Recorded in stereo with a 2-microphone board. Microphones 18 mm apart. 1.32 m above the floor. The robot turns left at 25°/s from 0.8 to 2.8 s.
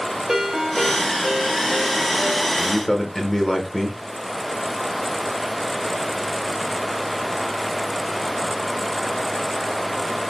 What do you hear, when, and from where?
0.3 s a ringtone: 30° right, 2.5 m; by 2.5 s 70° right, 2.5 m
2.6 s a man speaking: 25° left (ahead or behind), 1.2 m; by 4.0 s 20° left (ahead or behind), 1.2 m